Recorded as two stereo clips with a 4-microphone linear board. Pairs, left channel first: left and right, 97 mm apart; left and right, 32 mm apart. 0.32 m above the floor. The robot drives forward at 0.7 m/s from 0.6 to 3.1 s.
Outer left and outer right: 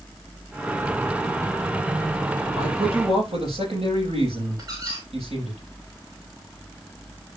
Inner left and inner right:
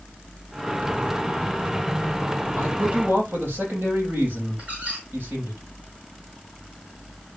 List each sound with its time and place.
2.6 s a man speaking: 85° right, 8.5 m
4.6 s a squeak: 40° right (ahead or behind), 7 m